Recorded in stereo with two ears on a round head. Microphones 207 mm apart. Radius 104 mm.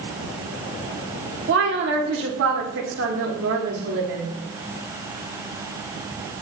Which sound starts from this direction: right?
A woman speaking, at 1.5 s.